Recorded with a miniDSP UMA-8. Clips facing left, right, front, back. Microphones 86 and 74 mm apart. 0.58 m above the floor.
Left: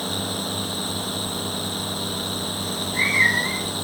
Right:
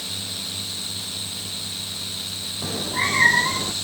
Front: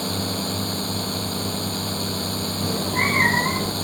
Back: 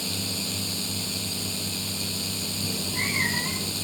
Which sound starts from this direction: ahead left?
A drone, at 0.0 s.